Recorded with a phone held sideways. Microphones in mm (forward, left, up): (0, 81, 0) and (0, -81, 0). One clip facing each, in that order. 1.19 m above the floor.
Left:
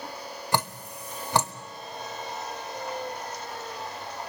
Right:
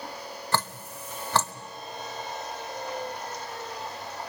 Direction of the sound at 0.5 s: 15° left (ahead or behind).